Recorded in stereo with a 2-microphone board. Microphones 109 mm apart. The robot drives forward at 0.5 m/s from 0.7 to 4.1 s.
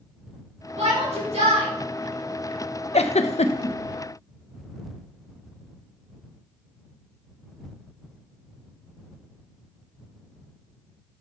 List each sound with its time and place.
0.8 s a shout: 80° right, 2.5 m; by 1.7 s 70° right (ahead or behind), 2.5 m
2.9 s a giggle: 70° left (ahead or behind), 0.5 m; by 3.8 s 60° left (ahead or behind), 0.5 m